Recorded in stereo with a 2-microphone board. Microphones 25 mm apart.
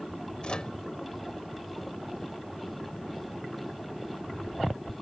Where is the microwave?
40° left (ahead or behind).